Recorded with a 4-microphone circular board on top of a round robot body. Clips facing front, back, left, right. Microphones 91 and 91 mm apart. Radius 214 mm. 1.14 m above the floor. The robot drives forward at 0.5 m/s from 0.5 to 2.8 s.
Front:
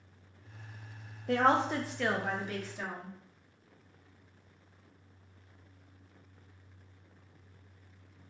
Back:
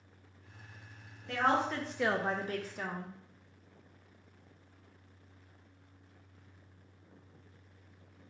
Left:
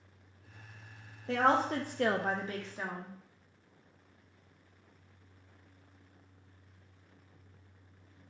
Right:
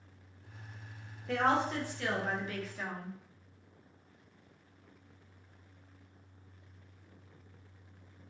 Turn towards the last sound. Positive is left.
turn(degrees=150)